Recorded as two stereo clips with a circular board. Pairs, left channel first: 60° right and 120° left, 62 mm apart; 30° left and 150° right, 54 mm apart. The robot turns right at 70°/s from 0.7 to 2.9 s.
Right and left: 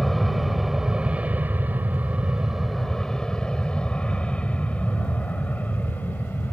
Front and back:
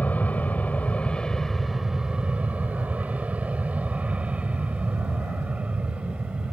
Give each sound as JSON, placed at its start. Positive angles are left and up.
{"t": 0.0, "sound": "an aircraft", "azimuth_deg": 30}